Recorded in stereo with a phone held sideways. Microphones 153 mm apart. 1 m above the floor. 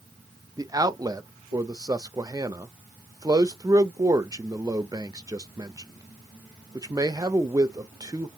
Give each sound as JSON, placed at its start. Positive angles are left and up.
{"t": 0.6, "sound": "a man speaking", "side_deg": -25, "distance_m": 0.5}